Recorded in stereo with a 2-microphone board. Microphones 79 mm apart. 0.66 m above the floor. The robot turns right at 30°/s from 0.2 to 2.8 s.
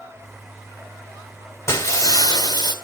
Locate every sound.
1.7 s breaking glass: 35° left, 2 m; by 2.7 s 65° left, 2 m